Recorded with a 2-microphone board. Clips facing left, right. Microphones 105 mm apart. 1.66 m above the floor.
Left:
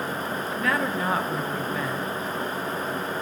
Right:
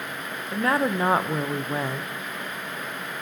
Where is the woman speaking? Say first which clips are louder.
Right 4 dB; 30° right (ahead or behind), 0.6 m.